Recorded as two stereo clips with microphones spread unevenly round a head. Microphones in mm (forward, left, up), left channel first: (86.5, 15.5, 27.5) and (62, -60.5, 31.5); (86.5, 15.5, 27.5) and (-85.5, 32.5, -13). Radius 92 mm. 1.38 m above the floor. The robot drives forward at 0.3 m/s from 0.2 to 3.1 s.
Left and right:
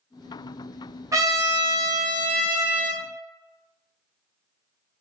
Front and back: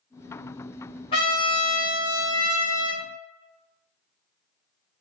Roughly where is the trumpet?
Ahead right.